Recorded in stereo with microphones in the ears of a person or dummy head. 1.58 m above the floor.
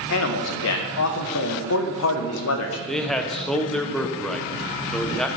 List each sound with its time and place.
0.1 s a man speaking: 80° left, 1.1 m
2.9 s a man speaking: 5° left (ahead or behind), 0.8 m